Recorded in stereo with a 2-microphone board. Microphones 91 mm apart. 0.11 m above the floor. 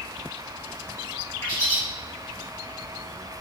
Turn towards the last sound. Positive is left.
turn(degrees=30)  # may be behind; listen again after turning